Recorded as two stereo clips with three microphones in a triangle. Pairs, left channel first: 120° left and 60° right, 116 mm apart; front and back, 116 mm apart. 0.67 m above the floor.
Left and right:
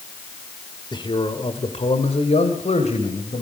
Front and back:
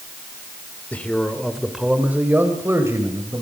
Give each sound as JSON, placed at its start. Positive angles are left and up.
{"t": 0.9, "sound": "a man speaking", "azimuth_deg": 75, "distance_m": 2.0}